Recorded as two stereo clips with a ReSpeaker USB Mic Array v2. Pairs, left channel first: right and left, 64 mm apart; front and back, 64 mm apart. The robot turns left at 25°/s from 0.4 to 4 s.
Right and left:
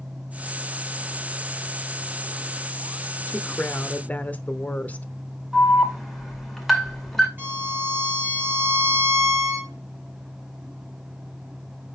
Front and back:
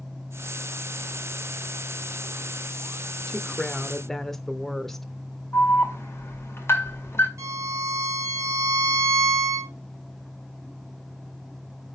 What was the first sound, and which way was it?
A woman speaking, 60° right.